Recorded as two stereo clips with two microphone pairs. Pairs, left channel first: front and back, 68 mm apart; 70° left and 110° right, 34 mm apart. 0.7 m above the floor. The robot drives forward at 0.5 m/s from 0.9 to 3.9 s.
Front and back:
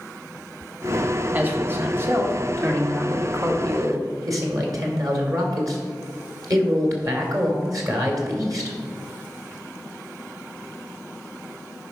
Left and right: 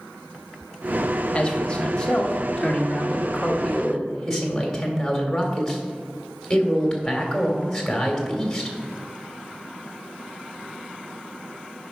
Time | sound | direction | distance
1.3 | a man speaking | 125° left | 1.6 m